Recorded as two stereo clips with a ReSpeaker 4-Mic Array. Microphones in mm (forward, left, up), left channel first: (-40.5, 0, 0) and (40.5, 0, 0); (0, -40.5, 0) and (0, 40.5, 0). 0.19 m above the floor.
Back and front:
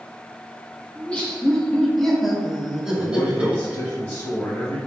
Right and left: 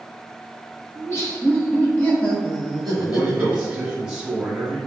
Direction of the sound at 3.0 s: 155° left.